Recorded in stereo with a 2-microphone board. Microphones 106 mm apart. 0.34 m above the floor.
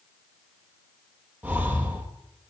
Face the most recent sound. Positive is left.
turn(degrees=-15)  # may be behind; listen again after turning